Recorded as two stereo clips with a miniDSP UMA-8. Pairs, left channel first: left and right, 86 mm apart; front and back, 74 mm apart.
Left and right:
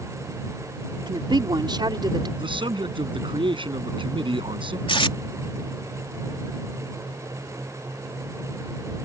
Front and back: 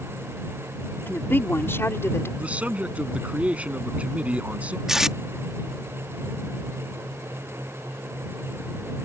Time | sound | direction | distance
1.1 | a woman speaking | 60° right | ?
2.4 | a man speaking | 110° right | ?
4.9 | tape being pulled | 95° left | ?